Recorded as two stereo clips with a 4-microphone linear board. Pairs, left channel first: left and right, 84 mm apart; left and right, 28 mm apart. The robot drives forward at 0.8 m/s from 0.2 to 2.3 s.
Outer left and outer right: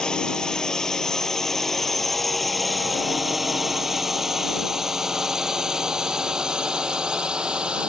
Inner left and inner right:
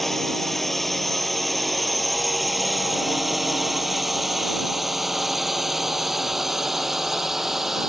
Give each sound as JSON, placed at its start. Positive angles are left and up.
{"t": 0.0, "sound": "a drone", "side_deg": 10}